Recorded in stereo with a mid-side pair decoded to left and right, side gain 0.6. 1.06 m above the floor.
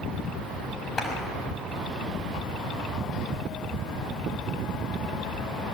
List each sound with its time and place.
1.0 s a clap: 30° left, 6 m